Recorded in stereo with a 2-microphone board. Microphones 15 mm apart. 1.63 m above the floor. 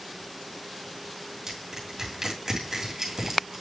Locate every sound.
1.5 s crushing: 30° right (ahead or behind), 2.5 m